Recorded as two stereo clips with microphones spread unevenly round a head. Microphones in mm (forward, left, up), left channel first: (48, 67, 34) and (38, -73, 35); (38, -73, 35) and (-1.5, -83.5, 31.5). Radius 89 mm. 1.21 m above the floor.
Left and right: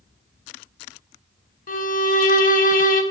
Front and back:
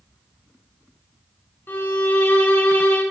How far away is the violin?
About 1.0 m.